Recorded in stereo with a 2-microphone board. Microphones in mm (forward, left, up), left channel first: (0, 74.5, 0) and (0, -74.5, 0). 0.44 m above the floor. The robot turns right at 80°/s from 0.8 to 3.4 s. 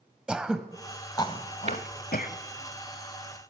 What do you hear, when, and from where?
0.3 s throat clearing: 5° right (ahead or behind), 1.1 m; by 2.4 s 60° left (ahead or behind), 1.1 m
1.7 s tapping: 50° right (ahead or behind), 1.6 m; by 1.8 s 40° right (ahead or behind), 1.6 m